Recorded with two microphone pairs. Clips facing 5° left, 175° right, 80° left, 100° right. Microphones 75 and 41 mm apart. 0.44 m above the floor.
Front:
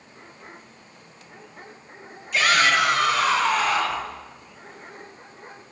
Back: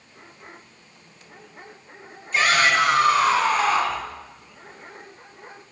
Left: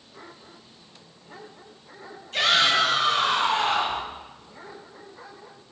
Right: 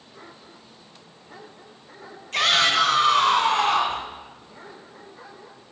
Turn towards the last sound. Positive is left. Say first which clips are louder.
# back 1 dB, right 1 dB
turn(degrees=-125)